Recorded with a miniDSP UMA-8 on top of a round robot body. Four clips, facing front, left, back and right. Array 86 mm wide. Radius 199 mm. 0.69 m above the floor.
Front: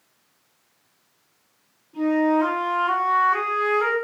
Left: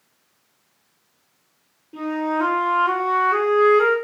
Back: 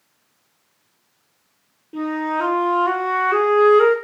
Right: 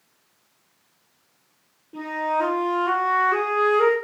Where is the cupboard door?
I don't hear a cupboard door.